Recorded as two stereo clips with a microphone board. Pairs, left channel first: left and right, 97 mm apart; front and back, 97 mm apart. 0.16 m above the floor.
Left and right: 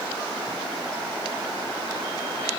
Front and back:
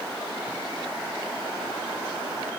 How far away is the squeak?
No squeak in this recording.